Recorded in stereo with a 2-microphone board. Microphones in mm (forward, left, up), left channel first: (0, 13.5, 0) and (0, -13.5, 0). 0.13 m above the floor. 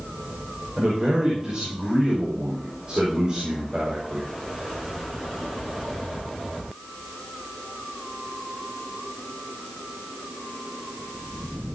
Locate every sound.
0.8 s a man speaking: 30° right (ahead or behind), 6 m